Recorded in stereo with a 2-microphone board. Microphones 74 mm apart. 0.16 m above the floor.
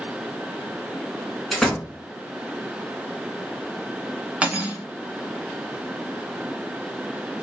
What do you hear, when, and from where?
1.5 s a door slam: 5° left (ahead or behind), 1.3 m
4.4 s cutlery clinking: 20° right (ahead or behind), 0.9 m